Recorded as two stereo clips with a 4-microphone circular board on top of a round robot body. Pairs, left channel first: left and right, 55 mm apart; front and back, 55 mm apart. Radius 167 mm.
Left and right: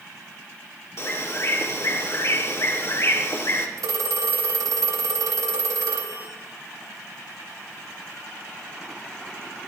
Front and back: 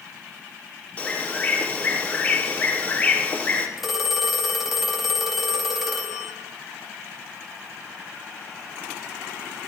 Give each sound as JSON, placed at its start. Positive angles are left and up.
{"t": 1.0, "sound": "a bird", "azimuth_deg": 65, "distance_m": 2.5}
{"t": 3.8, "sound": "a phone ringing", "azimuth_deg": -95, "distance_m": 2.5}